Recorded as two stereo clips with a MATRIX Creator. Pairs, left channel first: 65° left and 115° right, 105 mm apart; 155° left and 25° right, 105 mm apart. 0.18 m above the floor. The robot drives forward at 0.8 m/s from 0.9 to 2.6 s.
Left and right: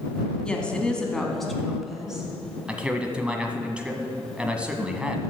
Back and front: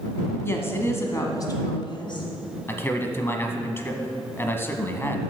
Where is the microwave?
I don't hear a microwave.